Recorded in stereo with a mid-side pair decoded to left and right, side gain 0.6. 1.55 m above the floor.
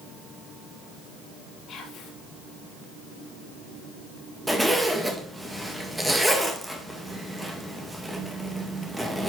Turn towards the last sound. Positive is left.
turn(degrees=-5)